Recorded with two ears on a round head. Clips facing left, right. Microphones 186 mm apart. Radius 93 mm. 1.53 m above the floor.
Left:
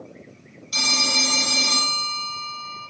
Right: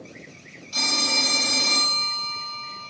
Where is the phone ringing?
40° left (ahead or behind), 4.5 m.